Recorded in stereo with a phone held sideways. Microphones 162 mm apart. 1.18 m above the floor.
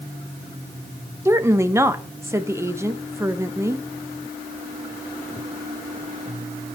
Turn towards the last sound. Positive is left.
turn(degrees=-15)  # may be behind; listen again after turning